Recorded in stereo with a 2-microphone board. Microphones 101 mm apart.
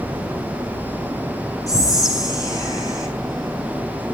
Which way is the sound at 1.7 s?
35° left (ahead or behind).